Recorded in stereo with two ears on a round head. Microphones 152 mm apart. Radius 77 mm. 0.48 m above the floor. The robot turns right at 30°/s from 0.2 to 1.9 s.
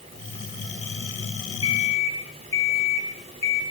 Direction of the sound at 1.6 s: 30° left (ahead or behind).